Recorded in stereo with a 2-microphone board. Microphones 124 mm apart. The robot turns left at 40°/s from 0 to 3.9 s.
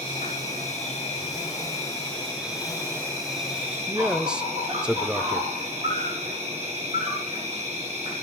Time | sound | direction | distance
0.0 | an insect | 95° left | 6.5 m
3.9 | a man speaking | 5° right (ahead or behind) | 0.8 m